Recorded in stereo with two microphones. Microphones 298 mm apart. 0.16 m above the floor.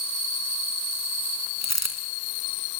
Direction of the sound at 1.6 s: 60° left (ahead or behind).